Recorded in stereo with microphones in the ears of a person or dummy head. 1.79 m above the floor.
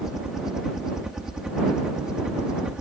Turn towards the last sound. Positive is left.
turn(degrees=-5)  # may be behind; listen again after turning